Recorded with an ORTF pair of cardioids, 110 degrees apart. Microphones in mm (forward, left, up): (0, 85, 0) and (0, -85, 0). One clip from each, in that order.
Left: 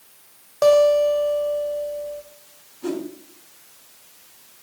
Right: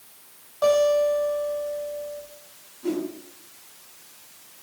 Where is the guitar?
60° left, 1.6 m.